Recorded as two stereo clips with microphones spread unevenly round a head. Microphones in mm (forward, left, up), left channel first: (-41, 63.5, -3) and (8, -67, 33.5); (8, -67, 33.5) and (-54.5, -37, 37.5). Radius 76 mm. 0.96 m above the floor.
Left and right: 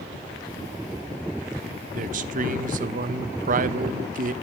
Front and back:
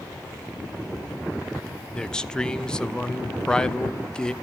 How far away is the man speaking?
About 0.9 m.